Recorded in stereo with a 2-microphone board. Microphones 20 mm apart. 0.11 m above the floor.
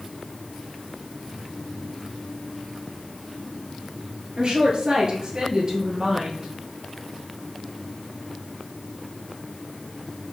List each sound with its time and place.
4.4 s a woman speaking: 45° right (ahead or behind), 1.7 m; by 6.5 s 25° right (ahead or behind), 2.5 m